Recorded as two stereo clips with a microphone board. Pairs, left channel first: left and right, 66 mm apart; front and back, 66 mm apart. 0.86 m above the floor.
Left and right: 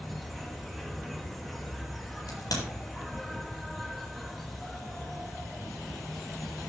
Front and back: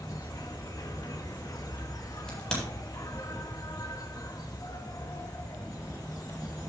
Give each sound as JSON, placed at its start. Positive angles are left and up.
{"t": 0.0, "sound": "an insect", "azimuth_deg": 5, "distance_m": 2.5}
{"t": 2.3, "sound": "a crack", "azimuth_deg": 80, "distance_m": 8.0}